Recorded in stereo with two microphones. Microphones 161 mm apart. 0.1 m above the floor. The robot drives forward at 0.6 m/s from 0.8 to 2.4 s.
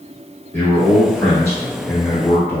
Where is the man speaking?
15° left (ahead or behind), 1.1 m.